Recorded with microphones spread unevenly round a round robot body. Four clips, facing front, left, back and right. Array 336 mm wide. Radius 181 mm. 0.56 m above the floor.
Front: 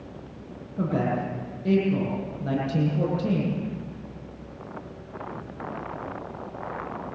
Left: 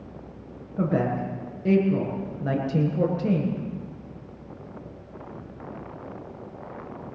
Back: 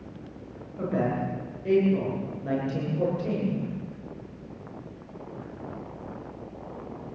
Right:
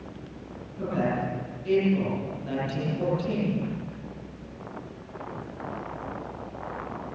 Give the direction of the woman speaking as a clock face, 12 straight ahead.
10 o'clock.